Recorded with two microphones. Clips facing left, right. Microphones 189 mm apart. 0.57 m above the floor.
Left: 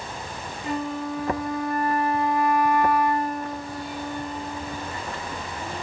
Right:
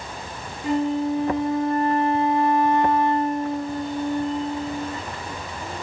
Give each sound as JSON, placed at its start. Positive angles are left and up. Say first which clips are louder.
{"t": 0.6, "sound": "a flute", "louder": "right 7 dB", "side_deg": -25, "distance_m": 1.1}